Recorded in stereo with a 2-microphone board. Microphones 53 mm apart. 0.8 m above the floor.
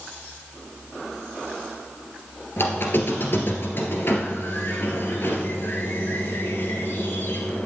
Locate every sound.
2.6 s a squeak: 50° left (ahead or behind), 2 m